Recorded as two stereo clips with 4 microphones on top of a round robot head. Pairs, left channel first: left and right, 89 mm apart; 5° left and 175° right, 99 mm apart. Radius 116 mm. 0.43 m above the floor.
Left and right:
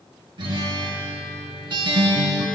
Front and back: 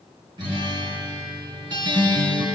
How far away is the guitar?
About 2.5 m.